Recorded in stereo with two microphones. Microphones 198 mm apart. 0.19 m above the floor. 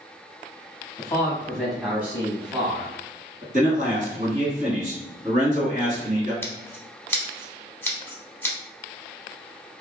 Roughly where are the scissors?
Centre.